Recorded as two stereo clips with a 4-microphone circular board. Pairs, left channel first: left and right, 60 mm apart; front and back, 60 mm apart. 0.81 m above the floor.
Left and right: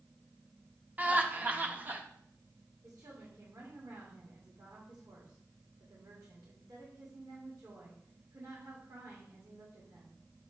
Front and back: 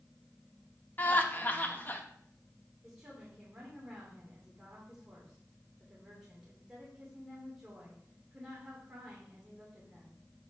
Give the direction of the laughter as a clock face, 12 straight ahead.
1 o'clock.